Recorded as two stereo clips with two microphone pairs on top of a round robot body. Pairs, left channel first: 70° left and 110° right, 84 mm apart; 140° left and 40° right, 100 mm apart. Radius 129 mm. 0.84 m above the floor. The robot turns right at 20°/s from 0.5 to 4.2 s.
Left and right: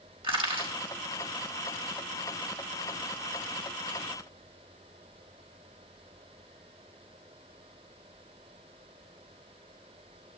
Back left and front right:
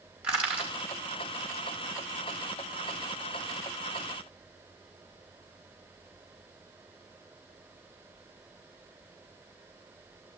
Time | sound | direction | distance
0.2 | crushing | 120° right | 4.5 m